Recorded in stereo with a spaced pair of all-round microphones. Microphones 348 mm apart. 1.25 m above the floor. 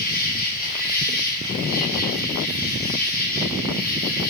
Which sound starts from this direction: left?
An insect, at 0.0 s.